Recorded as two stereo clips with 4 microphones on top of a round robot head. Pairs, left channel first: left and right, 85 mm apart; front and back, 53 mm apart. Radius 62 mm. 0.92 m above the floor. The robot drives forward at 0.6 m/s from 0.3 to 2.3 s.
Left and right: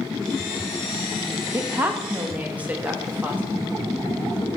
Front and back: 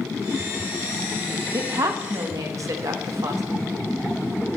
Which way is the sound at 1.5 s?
155° right.